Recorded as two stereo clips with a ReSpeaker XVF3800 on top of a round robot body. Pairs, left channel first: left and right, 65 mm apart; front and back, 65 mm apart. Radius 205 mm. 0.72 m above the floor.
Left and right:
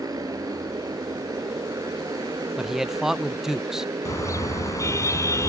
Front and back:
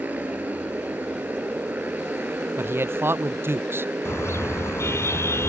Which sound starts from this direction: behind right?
A motorcycle, at 0.0 s.